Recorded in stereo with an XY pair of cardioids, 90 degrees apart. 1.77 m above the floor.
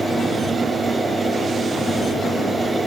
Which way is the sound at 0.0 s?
25° right.